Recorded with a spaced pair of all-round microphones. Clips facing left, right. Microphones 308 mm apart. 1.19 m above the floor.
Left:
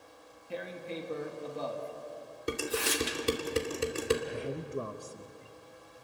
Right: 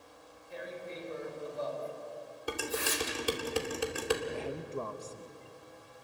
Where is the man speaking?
15° left (ahead or behind), 0.8 m.